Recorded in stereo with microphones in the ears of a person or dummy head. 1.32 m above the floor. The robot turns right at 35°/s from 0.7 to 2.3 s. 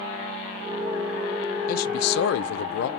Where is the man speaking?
50° left (ahead or behind), 0.5 m; by 2.9 s 65° left (ahead or behind), 0.5 m.